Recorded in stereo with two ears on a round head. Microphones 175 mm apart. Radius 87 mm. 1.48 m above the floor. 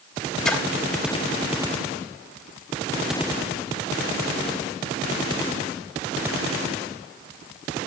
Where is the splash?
5° left (ahead or behind), 3 m.